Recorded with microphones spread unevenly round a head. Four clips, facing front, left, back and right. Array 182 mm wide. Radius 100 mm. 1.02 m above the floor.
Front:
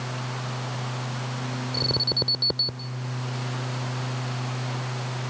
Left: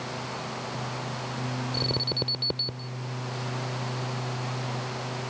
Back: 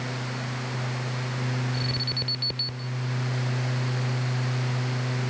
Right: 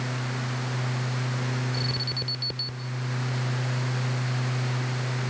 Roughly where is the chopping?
No chopping in this recording.